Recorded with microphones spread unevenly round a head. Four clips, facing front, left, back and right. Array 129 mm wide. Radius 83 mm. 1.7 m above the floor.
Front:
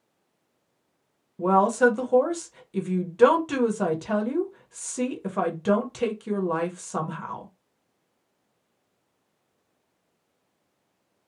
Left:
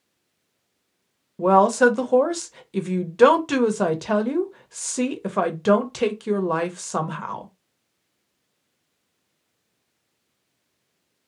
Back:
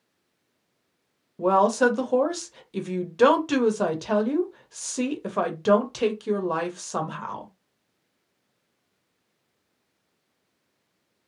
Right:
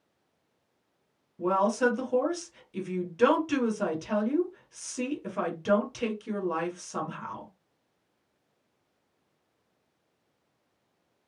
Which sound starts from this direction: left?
A woman speaking, at 1.4 s.